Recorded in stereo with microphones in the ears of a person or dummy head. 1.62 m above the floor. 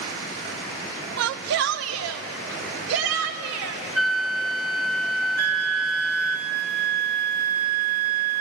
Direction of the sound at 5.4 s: 60° right (ahead or behind).